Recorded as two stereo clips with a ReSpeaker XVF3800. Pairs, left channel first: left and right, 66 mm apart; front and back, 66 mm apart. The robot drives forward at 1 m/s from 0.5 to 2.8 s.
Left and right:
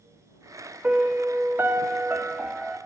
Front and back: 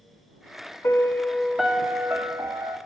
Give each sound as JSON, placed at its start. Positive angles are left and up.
{"t": 0.8, "sound": "a piano", "azimuth_deg": -30, "distance_m": 1.0}